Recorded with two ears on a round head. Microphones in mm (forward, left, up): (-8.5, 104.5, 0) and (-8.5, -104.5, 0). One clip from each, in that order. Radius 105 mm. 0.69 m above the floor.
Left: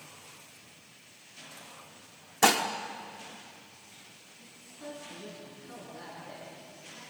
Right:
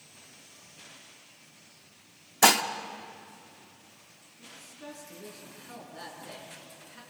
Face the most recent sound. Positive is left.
turn(degrees=-40)  # may be behind; listen again after turning